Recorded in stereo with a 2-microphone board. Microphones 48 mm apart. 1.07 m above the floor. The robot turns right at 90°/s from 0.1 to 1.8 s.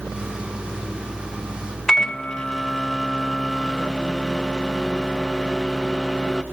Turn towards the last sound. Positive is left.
turn(degrees=15)  # may be behind; listen again after turning